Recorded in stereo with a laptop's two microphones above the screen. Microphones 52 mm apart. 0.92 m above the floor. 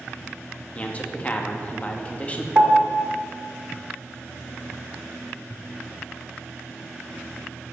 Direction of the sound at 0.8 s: 25° left (ahead or behind).